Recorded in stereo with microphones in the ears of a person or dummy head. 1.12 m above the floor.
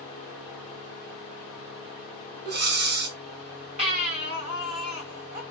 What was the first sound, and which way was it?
Breathing, 55° right (ahead or behind).